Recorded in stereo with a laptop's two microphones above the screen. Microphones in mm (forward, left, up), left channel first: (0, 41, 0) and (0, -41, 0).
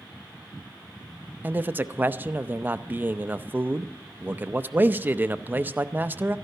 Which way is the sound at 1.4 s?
25° right (ahead or behind).